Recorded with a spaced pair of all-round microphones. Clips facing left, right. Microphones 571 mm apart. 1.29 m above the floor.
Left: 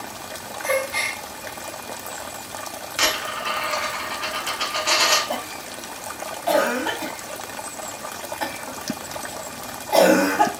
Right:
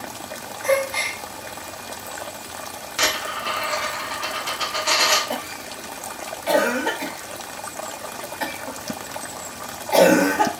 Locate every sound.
0.6 s a gasp: 65° right (ahead or behind), 1.7 m
3.0 s a dropped coin: 20° right (ahead or behind), 1.0 m
5.3 s a cough: 50° right (ahead or behind), 0.6 m